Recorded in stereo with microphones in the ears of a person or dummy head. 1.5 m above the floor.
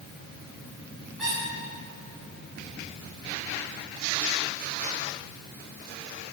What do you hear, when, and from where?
1.2 s a squeak: 5° right (ahead or behind), 1.7 m